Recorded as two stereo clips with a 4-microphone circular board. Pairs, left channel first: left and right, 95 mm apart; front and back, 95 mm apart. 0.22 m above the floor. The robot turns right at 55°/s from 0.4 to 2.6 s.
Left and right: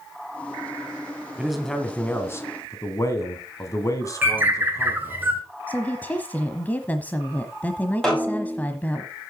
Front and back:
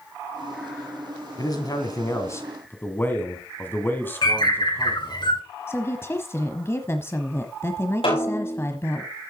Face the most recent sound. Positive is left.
turn(degrees=5)